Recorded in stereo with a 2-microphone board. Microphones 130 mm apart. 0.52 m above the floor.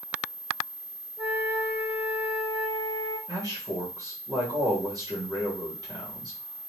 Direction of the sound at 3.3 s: 30° right (ahead or behind).